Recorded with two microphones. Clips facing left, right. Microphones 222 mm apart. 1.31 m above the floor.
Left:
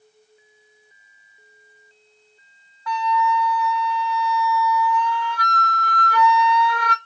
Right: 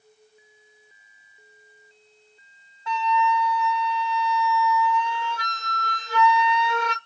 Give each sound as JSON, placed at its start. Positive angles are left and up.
{"t": 2.9, "sound": "a flute", "side_deg": -25, "distance_m": 0.6}